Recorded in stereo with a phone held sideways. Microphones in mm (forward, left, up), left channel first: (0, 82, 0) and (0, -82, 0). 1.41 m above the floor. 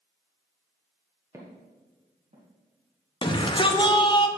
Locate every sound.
1.3 s footsteps: 15° right (ahead or behind), 1.4 m; by 2.5 s 55° right (ahead or behind), 2.5 m
3.2 s a shout: 30° left (ahead or behind), 0.8 m